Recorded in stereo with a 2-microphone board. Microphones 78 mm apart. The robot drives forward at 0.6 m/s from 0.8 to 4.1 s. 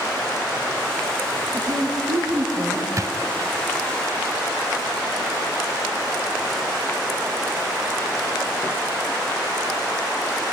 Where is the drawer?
45° right (ahead or behind), 0.5 m; by 3.1 s 40° right (ahead or behind), 0.6 m.